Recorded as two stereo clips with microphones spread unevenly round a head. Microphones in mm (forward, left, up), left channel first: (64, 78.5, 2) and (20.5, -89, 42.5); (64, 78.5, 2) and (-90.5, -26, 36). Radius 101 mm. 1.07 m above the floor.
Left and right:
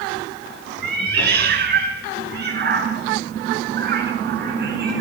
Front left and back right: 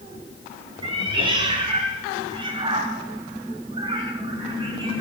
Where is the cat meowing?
80° right, 9.5 m.